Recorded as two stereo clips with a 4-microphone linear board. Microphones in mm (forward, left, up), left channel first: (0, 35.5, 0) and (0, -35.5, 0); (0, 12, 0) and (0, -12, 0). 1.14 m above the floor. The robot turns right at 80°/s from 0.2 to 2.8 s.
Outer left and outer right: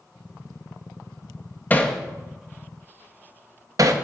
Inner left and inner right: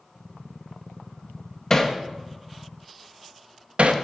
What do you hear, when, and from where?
1.7 s hammering: 25° left (ahead or behind), 0.6 m; by 4.0 s 50° right (ahead or behind), 0.6 m